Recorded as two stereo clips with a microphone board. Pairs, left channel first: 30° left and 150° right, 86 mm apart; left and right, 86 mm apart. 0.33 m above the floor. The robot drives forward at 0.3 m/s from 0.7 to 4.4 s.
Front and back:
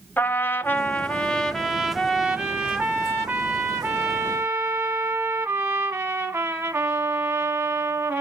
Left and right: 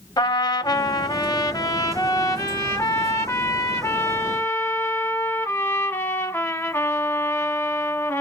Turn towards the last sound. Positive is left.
turn(degrees=155)